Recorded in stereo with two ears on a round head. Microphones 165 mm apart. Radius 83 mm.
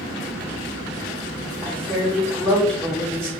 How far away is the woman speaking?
About 1.3 m.